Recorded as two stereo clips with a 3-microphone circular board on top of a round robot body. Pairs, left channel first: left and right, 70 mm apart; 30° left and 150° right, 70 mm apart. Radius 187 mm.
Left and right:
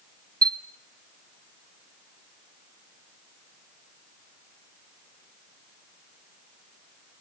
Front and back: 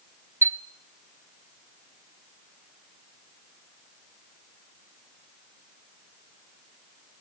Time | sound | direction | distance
0.4 | a chime | 95° right | 1.1 m